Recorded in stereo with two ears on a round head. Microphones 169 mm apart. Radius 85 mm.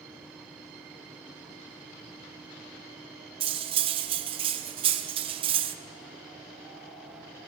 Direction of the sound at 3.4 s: 30° right (ahead or behind).